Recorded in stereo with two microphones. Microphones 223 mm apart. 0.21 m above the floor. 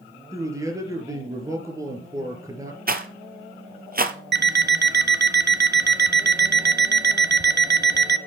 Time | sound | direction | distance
0.3 | a man speaking | 15° right (ahead or behind) | 4 m
2.9 | a rattle | 40° right (ahead or behind) | 1.3 m
4.3 | an alarm clock | 50° right (ahead or behind) | 0.9 m